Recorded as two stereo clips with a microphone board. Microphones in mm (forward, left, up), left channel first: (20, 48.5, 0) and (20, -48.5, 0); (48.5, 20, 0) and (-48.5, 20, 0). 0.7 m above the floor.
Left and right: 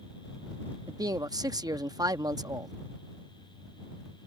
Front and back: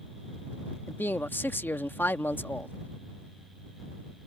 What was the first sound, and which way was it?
A man speaking, 60° right.